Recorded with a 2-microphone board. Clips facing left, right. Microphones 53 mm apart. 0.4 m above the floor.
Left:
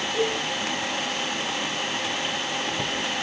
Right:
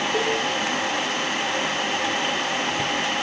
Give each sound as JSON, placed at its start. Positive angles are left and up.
{"t": 0.1, "sound": "a cowbell", "side_deg": -55, "distance_m": 3.5}